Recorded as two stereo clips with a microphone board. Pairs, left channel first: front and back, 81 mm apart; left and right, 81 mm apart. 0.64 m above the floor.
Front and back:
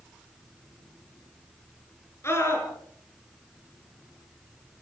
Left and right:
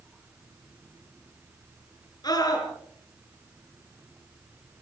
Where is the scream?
55° left, 8.5 m.